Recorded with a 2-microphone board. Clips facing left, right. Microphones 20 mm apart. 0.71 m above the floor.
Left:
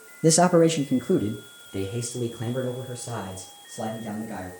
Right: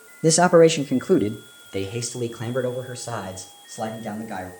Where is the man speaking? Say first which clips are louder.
Right 4 dB; 5° right (ahead or behind), 0.6 m; by 4.5 s 45° right (ahead or behind), 4 m.